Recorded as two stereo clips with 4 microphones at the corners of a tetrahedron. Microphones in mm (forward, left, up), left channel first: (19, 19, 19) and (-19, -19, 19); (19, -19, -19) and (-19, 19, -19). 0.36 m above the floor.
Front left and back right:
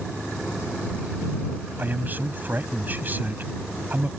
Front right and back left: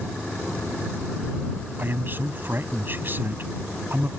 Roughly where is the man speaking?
Behind.